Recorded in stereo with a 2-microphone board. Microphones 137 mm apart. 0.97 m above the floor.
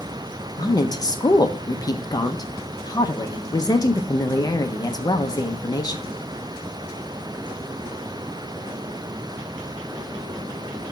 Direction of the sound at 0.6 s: 30° left (ahead or behind).